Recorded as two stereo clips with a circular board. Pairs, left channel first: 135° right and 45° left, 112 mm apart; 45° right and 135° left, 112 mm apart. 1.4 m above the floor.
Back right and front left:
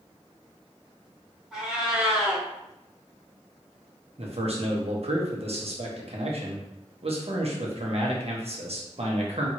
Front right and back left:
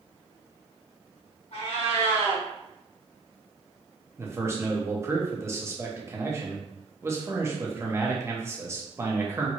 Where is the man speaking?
70° left, 1.2 m.